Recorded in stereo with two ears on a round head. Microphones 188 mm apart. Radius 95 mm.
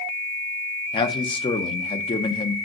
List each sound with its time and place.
0.9 s a man speaking: 25° left (ahead or behind), 0.7 m